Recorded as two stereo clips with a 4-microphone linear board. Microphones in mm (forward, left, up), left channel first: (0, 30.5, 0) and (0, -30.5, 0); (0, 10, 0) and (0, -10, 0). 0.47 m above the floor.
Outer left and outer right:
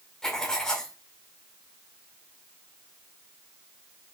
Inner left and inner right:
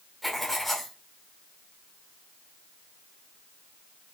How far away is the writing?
About 1.7 m.